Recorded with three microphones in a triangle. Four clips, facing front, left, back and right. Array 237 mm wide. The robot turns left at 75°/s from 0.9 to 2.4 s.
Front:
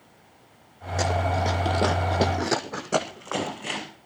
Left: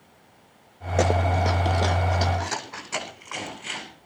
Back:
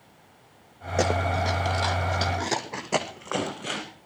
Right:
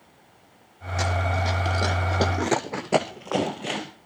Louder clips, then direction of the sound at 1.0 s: Left 4 dB, even; 115° left.